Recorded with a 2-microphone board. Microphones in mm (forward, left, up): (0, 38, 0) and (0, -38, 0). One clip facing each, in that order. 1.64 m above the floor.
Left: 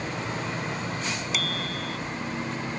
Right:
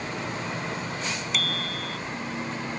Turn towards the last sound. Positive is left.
turn(degrees=5)  # may be behind; listen again after turning